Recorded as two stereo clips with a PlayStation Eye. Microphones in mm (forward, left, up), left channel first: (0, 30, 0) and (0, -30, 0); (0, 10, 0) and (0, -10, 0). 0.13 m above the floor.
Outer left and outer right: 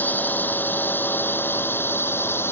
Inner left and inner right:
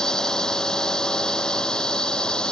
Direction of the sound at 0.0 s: 30° left (ahead or behind).